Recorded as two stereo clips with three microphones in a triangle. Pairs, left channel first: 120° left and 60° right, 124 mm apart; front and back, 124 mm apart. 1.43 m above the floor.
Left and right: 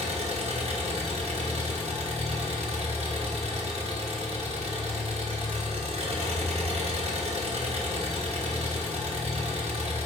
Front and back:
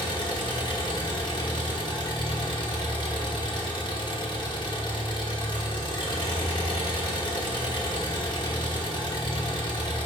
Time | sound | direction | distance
0.0 | an engine running | 45° right | 1.9 m